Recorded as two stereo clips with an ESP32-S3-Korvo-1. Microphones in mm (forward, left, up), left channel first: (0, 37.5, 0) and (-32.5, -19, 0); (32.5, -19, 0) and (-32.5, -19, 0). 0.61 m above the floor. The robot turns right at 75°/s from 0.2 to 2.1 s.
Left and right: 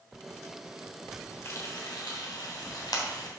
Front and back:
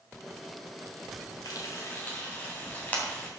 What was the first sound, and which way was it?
Frying, 15° left.